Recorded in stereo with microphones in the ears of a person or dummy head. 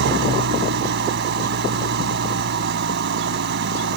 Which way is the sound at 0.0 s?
60° right (ahead or behind).